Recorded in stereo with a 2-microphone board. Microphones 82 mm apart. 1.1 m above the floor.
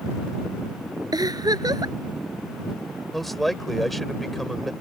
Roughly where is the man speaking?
Centre.